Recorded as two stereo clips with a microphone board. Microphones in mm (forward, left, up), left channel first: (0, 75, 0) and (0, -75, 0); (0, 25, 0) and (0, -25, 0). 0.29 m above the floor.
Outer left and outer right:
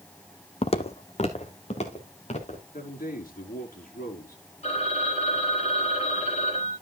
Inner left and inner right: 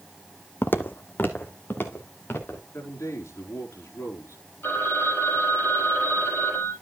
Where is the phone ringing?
45° left (ahead or behind), 6 m.